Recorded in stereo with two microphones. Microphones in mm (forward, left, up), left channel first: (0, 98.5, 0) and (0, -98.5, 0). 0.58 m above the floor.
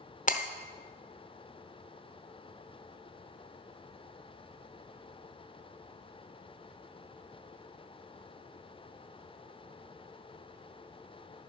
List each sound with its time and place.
0.3 s breaking glass: 40° left (ahead or behind), 0.8 m